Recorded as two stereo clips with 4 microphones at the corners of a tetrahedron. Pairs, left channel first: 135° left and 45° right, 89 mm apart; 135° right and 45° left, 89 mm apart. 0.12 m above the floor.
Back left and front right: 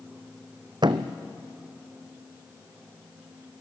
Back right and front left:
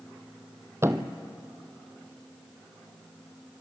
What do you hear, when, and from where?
0.8 s a thud: 15° right, 0.9 m